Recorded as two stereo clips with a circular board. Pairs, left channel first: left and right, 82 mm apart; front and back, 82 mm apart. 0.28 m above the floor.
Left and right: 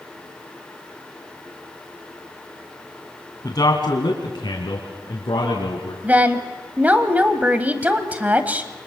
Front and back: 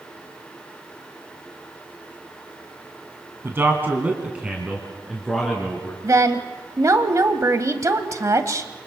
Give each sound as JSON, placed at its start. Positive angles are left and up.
{"t": 3.4, "sound": "a man speaking", "azimuth_deg": 125, "distance_m": 2.5}
{"t": 6.0, "sound": "a woman speaking", "azimuth_deg": -150, "distance_m": 1.4}